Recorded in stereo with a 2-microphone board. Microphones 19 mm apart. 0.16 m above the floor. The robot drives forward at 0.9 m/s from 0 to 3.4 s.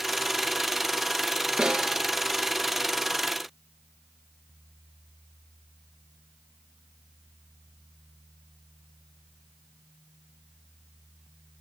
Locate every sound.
1.6 s a snare drum: 50° right (ahead or behind), 1.4 m; by 2.0 s 45° right (ahead or behind), 1.6 m